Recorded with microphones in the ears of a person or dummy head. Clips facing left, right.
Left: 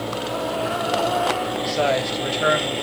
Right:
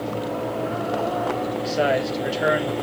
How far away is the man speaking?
About 1.4 m.